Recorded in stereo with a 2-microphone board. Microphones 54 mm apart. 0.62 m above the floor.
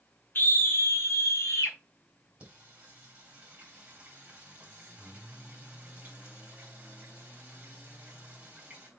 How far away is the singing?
About 3.5 m.